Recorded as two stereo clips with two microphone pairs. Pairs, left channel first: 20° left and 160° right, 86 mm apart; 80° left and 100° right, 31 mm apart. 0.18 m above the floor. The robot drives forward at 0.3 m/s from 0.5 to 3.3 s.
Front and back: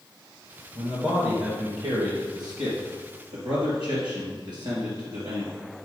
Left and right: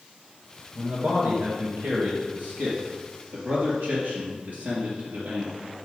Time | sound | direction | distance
0.8 | a man speaking | 115° right | 2.5 m